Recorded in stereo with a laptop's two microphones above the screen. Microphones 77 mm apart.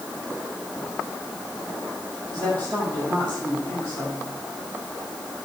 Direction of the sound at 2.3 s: 65° right (ahead or behind).